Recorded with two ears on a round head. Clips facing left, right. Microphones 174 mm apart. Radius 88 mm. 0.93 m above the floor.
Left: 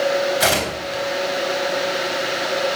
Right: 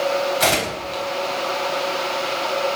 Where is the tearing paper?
5° left (ahead or behind), 4 m.